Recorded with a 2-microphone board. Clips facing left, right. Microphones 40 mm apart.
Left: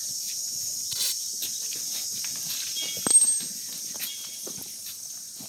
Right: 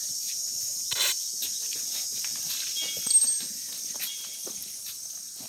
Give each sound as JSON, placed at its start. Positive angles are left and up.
{"t": 0.9, "sound": "tape being pulled", "side_deg": -50}
{"t": 3.1, "sound": "a clink", "side_deg": 60}